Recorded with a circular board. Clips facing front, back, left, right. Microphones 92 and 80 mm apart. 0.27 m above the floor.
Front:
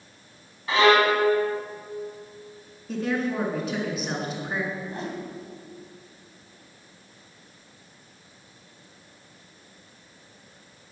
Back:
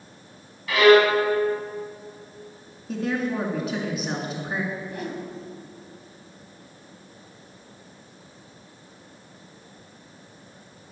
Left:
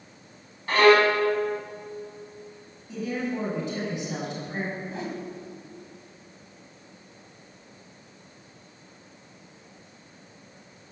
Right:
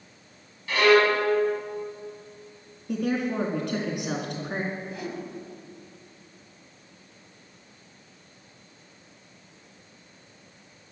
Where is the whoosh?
45° left, 1.9 m.